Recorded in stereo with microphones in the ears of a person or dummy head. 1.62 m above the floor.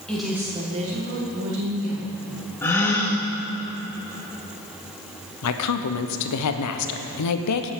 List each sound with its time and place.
0.1 s a woman speaking: 5° left (ahead or behind), 1.6 m; by 2.1 s 80° right, 2.5 m
2.6 s a gasp: 10° left (ahead or behind), 1.1 m
5.4 s a woman speaking: 85° left, 0.8 m